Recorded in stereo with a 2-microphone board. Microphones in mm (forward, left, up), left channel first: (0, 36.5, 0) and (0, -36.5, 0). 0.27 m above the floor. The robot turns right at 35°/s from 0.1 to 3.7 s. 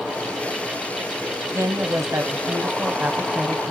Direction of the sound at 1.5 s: 90° right.